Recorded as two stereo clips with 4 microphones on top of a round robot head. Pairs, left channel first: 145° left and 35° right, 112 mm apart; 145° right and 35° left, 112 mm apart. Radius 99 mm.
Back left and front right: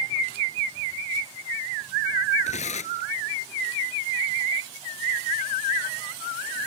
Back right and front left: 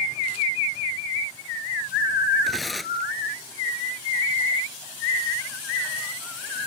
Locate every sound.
2.4 s tearing paper: 125° left